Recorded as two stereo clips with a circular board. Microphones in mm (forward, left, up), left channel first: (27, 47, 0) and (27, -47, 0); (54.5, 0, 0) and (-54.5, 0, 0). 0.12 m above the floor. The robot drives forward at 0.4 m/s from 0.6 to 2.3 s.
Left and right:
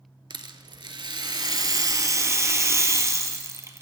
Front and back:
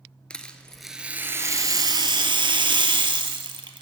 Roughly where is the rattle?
Right.